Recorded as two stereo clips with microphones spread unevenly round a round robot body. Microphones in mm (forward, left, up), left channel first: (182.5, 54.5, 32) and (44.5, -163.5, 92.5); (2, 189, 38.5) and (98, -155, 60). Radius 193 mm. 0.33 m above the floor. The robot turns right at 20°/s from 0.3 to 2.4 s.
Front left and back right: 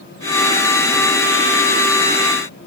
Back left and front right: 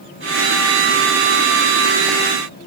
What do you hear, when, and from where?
Only background noise.